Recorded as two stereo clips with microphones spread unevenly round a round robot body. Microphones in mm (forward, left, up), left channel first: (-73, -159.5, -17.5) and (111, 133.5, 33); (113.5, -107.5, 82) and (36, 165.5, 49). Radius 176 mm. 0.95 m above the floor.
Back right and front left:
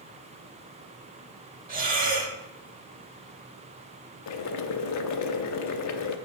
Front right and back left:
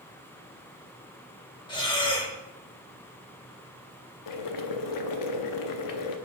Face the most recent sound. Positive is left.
turn(degrees=-75)